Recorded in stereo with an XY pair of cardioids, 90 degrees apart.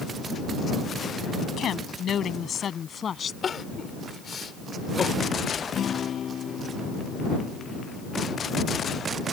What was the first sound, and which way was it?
A woman speaking, 70° left.